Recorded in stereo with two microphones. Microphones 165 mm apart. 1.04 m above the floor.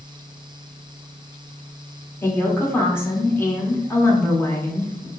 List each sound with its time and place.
2.2 s a woman speaking: 15° left (ahead or behind), 1.0 m